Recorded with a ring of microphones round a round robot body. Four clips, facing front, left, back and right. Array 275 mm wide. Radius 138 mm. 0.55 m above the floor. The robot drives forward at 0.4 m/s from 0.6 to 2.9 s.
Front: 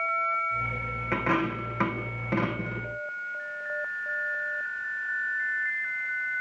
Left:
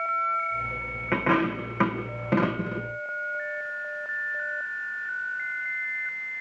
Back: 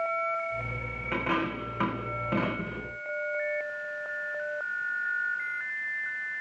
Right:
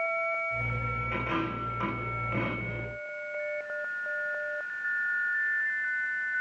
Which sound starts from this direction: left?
A dropped coin, at 1.1 s.